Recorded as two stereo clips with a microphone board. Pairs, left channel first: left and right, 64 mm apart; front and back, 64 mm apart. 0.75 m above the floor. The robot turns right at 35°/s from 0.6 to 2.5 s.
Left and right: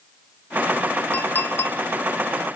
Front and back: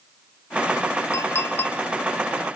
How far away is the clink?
About 0.9 m.